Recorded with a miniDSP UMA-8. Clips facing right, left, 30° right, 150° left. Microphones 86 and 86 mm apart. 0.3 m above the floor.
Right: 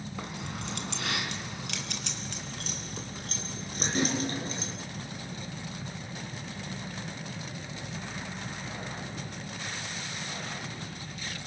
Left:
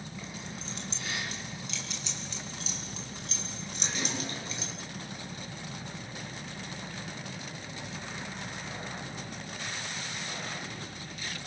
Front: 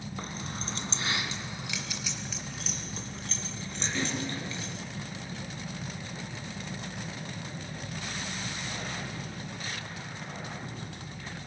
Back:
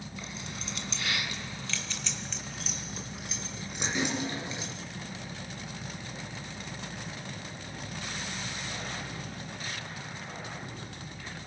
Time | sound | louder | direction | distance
0.2 | keys jangling | right 6 dB, front 4 dB | 70° right | 2 m